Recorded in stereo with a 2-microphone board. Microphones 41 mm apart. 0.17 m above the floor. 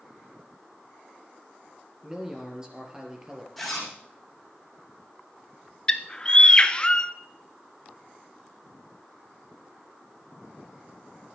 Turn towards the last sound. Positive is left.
turn(degrees=20)  # may be behind; listen again after turning